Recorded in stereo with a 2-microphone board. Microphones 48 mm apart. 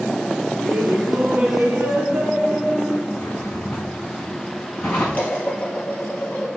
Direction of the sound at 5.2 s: 30° left (ahead or behind).